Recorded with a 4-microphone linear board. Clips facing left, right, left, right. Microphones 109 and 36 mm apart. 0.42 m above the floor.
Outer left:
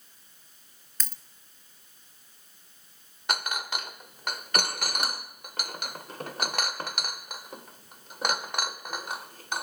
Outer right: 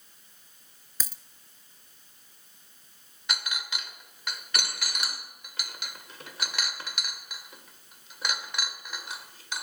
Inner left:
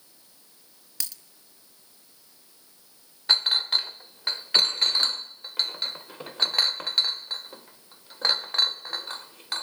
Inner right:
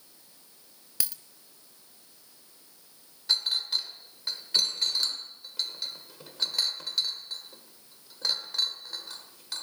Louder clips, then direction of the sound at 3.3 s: Outer left 5 dB, inner left 5 dB; 50° left (ahead or behind).